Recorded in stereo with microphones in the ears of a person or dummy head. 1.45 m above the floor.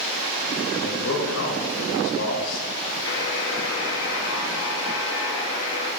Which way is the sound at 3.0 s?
80° left.